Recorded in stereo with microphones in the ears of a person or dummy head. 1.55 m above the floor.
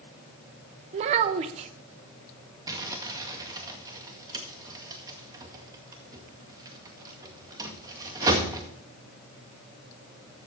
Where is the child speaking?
35° right (ahead or behind), 0.8 m.